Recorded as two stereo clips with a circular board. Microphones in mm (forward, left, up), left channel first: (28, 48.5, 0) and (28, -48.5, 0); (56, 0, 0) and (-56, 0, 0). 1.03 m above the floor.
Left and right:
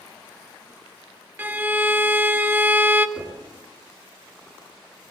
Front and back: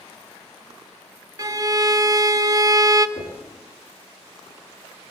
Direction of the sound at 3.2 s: 10° left.